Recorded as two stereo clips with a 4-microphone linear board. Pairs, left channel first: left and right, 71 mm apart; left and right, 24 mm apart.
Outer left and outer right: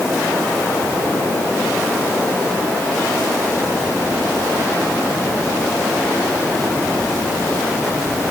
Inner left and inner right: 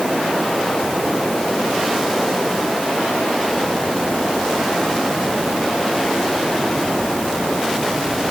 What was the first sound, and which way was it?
Only background noise.